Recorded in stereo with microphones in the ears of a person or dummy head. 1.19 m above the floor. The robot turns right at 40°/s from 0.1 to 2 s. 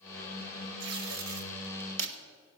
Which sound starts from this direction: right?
Tape being pulled, at 0.8 s.